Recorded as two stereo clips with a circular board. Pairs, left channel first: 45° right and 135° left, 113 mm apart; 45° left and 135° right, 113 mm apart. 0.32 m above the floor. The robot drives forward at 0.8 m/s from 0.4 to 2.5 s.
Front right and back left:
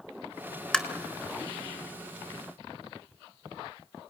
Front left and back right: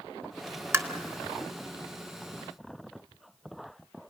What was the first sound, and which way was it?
Tapping, 120° right.